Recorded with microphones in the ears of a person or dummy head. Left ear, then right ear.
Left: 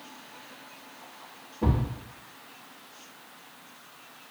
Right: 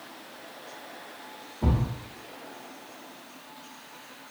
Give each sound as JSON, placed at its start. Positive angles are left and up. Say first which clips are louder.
{"t": 1.6, "sound": "a thud", "louder": "left 1 dB", "side_deg": 35, "distance_m": 1.5}